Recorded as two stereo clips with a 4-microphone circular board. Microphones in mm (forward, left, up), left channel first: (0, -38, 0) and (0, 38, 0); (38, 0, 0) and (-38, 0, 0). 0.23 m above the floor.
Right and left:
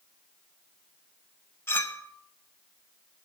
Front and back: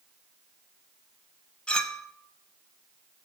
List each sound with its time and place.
1.7 s a clink: 65° right, 0.6 m